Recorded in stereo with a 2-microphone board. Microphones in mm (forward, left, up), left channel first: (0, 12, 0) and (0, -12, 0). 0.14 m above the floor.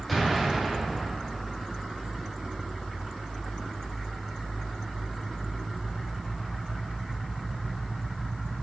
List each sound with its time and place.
0.1 s an explosion: centre (ahead or behind), 5 m